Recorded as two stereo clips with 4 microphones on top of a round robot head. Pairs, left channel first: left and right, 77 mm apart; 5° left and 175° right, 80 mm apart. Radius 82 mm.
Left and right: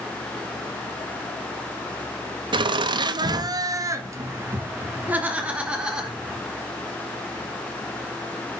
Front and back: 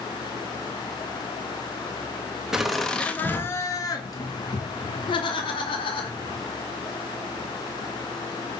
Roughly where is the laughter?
Right.